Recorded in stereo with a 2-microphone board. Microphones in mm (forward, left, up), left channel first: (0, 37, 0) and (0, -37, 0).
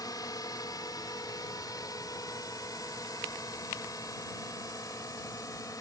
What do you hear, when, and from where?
0.0 s a drone: 60° left (ahead or behind); by 5.8 s 55° left (ahead or behind)